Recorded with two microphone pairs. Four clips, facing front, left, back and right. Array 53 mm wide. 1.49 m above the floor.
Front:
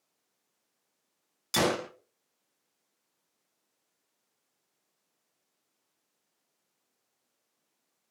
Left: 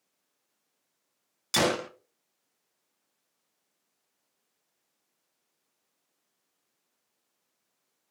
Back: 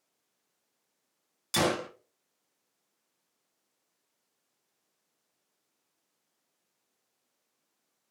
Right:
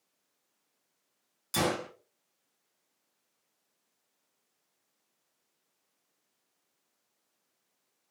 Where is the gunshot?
90° left, 0.6 m.